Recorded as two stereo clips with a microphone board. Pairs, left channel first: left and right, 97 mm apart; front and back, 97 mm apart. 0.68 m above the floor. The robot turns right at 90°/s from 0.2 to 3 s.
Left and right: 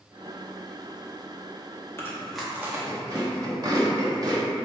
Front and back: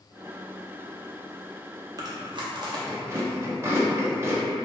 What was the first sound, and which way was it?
Chewing, 145° left.